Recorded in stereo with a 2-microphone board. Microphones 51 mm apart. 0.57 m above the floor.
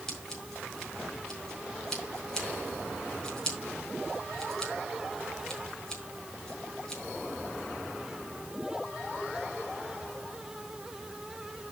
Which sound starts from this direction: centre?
Scissors, at 0.1 s.